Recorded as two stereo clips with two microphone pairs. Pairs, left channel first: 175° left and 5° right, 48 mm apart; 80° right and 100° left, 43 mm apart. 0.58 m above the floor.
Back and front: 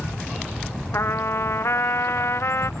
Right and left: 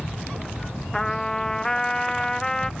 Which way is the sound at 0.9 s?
155° right.